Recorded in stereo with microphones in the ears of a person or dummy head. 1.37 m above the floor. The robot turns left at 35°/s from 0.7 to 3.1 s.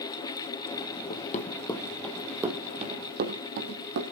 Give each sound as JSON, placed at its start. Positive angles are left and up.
{"t": 1.1, "sound": "running footsteps", "side_deg": 40, "distance_m": 2.5}